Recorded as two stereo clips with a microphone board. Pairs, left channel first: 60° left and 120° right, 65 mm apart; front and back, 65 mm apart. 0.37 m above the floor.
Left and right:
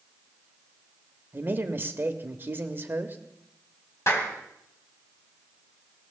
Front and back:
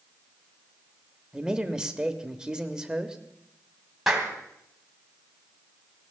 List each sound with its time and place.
1.3 s a man speaking: 110° right, 1.2 m
4.1 s a clap: 100° left, 2.5 m